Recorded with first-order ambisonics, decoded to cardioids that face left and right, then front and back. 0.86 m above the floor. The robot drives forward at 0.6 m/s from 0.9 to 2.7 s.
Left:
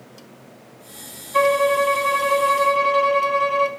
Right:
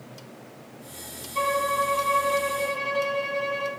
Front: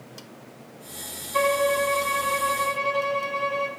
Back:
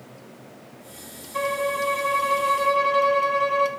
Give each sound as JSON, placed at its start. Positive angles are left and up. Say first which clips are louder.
{"t": 1.3, "sound": "a violin", "louder": "left 7 dB, front 3 dB", "azimuth_deg": 70, "distance_m": 1.1}